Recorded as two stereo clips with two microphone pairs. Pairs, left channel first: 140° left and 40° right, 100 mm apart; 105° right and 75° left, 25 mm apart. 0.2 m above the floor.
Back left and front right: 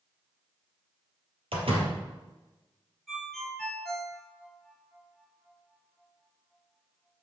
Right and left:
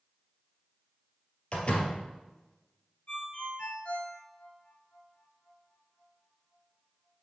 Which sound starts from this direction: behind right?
A ringtone, at 3.1 s.